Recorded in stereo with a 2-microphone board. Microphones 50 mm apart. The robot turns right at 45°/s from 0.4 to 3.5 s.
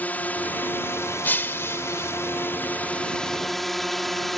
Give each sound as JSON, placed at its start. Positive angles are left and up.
{"t": 0.0, "sound": "a drone", "azimuth_deg": 35}
{"t": 1.2, "sound": "breaking glass", "azimuth_deg": 55}